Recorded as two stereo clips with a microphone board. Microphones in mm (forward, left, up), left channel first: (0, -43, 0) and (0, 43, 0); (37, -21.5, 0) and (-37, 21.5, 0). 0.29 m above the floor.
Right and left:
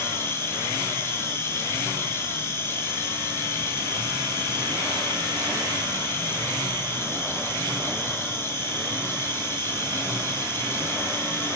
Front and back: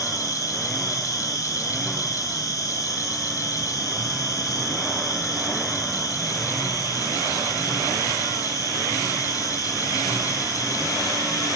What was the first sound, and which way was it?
An insect, 45° right.